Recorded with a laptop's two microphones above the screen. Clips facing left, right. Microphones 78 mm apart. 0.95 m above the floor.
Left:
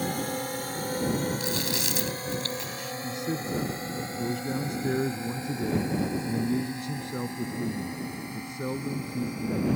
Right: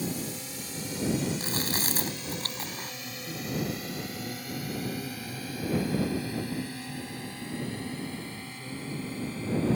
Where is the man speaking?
75° left (ahead or behind).